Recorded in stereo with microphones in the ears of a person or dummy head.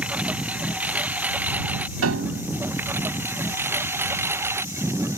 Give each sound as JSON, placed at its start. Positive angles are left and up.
{"t": 0.0, "sound": "a lawn mower", "side_deg": -5}
{"t": 2.0, "sound": "a piano", "side_deg": -85}